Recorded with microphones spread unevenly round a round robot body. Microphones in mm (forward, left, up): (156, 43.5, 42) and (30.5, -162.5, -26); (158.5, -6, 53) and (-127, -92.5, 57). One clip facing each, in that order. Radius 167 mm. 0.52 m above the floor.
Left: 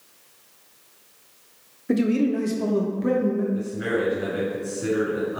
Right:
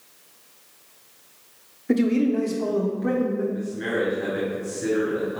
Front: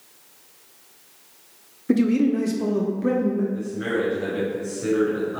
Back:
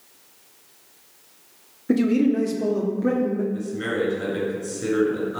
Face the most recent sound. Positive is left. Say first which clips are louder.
# left 1 dB, even
turn(degrees=145)